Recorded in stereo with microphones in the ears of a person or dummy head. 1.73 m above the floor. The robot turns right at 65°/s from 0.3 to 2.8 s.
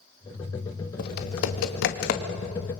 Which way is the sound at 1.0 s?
50° left (ahead or behind).